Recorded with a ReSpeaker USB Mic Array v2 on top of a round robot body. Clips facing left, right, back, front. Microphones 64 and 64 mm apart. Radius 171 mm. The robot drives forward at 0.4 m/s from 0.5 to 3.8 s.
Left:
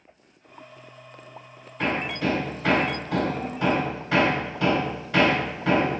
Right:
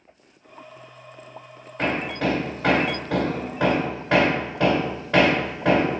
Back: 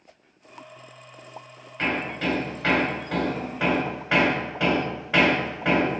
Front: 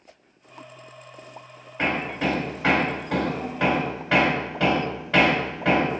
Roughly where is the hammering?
Right.